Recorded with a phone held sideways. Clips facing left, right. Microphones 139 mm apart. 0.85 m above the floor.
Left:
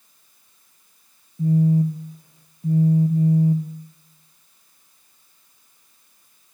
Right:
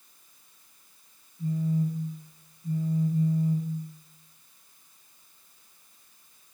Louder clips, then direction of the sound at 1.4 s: Left 9 dB; 85° left.